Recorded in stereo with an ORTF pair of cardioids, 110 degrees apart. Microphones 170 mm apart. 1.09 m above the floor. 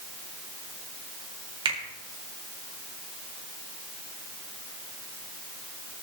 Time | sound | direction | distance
1.6 | a finger snap | 30° right | 3.5 m